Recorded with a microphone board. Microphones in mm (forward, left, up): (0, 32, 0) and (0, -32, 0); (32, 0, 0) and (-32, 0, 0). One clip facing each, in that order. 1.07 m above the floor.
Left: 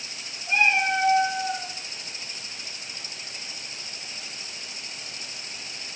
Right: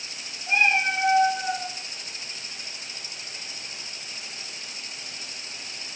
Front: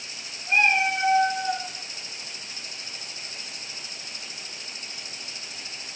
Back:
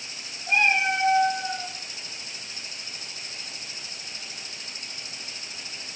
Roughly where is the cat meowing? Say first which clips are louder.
Even, front 1 dB; behind right.